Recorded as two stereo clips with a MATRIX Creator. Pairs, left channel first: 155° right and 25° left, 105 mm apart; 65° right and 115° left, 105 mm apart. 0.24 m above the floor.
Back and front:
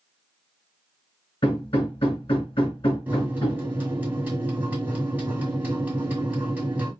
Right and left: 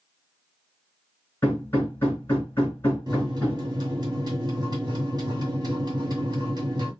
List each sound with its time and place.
1.4 s hammering: 130° right, 2.5 m
3.1 s a microwave: 90° left, 1.7 m